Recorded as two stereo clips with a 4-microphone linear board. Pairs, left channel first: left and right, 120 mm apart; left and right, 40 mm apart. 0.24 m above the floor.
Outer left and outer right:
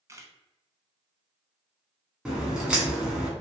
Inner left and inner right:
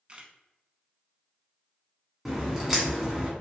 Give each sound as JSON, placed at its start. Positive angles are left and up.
{"t": 0.1, "sound": "a camera shutter", "side_deg": -25, "distance_m": 0.6}
{"t": 2.2, "sound": "a crack", "side_deg": -5, "distance_m": 1.2}